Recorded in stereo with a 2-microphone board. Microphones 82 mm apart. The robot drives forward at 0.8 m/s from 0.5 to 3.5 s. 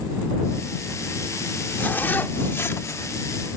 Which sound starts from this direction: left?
A zipper, at 1.8 s.